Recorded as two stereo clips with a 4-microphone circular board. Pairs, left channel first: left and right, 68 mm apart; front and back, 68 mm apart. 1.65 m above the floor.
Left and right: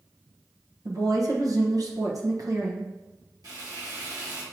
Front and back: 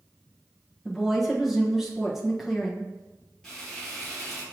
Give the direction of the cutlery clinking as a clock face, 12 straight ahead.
No cutlery clinking in this recording.